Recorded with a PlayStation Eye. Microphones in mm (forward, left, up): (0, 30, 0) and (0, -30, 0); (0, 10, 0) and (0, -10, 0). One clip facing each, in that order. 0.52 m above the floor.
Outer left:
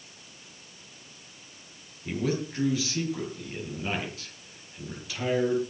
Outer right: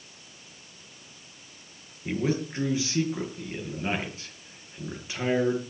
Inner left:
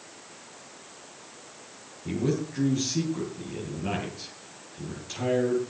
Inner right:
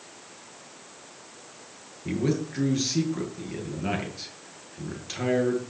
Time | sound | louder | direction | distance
2.0 | a man speaking | outer right 2 dB, inner right 1 dB | 25° right (ahead or behind) | 9 m